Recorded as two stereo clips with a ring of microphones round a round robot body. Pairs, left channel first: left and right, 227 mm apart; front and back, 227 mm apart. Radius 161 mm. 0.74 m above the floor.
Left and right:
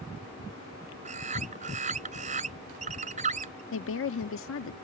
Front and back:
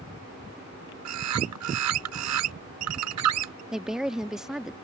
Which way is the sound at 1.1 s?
160° right.